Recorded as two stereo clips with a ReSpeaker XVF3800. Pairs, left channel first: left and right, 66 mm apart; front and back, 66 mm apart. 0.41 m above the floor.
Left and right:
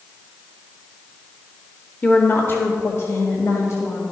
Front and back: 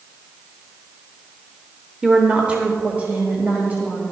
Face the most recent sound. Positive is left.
turn(degrees=120)